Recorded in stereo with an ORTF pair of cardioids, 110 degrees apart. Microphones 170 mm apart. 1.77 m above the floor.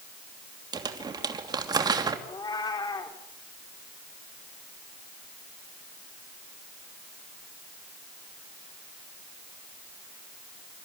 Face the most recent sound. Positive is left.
turn(degrees=25)